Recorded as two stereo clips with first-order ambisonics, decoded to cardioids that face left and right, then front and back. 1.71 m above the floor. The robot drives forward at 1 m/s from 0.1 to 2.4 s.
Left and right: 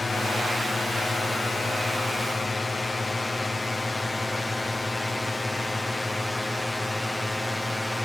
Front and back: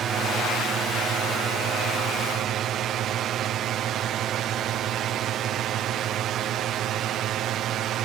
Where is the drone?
160° left; by 8.1 s 175° left.